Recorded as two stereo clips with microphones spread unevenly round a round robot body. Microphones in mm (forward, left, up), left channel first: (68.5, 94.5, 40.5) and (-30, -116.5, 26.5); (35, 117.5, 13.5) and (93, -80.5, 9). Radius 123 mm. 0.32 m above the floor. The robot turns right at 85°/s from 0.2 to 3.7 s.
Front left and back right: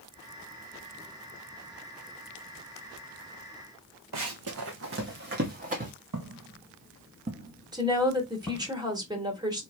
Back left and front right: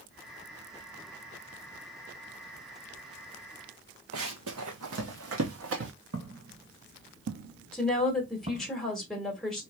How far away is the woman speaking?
About 1.1 m.